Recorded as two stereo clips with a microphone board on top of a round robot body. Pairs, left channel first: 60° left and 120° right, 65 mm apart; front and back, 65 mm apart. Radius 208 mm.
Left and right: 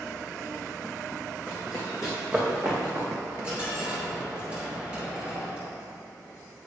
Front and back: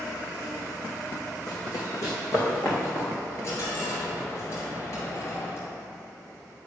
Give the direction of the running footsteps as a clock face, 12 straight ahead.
1 o'clock.